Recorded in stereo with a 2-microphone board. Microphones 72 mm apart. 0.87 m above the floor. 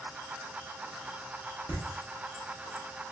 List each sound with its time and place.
1.7 s laughter: 40° left (ahead or behind), 1.4 m